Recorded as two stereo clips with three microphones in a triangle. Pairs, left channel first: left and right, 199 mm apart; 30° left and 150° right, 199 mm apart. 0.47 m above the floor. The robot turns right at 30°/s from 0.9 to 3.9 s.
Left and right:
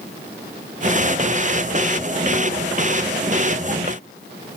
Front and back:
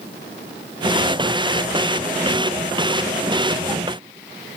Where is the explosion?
No explosion in this recording.